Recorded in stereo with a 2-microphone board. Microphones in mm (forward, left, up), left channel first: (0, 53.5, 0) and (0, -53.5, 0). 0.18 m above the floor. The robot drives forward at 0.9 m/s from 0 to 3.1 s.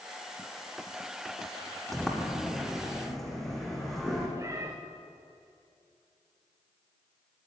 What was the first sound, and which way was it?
A sliding door, centre (ahead or behind).